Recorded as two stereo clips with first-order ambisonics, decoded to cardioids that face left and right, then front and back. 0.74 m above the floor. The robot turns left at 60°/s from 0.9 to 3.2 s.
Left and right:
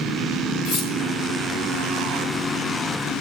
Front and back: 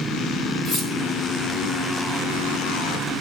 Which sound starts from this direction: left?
Cutlery clinking, at 0.7 s.